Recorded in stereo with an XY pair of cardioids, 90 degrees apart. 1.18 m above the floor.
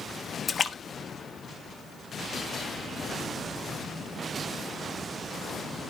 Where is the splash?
40° left, 1.0 m.